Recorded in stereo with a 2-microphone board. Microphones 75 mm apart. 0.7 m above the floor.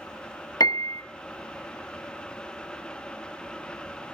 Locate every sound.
0.6 s a piano: 60° left (ahead or behind), 0.7 m